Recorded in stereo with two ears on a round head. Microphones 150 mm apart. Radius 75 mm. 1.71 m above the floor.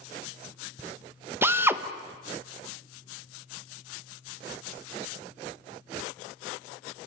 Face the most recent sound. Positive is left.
turn(degrees=-15)  # may be behind; listen again after turning